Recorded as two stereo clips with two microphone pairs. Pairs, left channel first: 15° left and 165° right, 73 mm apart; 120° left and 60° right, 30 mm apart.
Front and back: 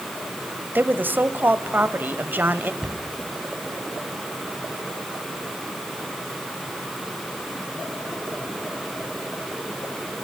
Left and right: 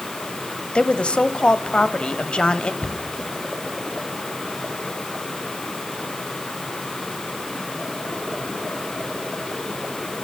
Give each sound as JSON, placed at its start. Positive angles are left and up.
{"t": 0.8, "sound": "a woman speaking", "azimuth_deg": 145, "distance_m": 1.1}
{"t": 2.8, "sound": "a cupboard door", "azimuth_deg": 120, "distance_m": 2.5}